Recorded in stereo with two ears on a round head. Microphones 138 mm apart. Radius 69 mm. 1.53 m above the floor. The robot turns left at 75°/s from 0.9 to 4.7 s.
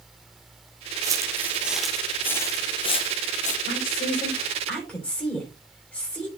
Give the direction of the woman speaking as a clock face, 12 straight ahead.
9 o'clock.